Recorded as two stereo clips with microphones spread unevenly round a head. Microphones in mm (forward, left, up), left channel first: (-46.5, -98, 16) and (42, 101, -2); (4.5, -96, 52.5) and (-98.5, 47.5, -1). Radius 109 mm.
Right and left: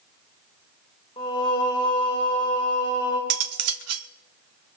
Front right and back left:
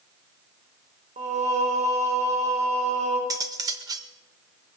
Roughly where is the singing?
Behind.